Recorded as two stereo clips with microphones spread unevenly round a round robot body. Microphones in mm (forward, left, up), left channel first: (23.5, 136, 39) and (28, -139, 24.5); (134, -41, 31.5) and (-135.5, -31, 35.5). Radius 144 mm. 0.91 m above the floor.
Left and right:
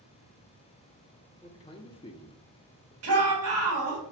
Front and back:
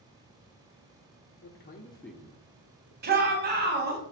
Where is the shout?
130° right, 1.4 m.